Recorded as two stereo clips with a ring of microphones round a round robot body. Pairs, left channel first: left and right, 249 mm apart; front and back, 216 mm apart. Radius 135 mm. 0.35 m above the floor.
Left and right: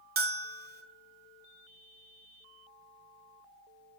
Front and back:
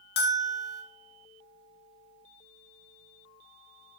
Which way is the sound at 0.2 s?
40° right.